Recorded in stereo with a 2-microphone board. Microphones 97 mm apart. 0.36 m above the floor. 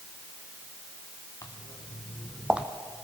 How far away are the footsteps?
About 2 m.